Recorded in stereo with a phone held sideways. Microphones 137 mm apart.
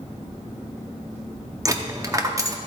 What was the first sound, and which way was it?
A dropped coin, 25° right (ahead or behind).